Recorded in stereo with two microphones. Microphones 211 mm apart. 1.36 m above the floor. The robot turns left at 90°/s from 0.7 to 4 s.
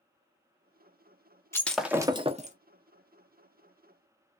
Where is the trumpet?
No trumpet in this recording.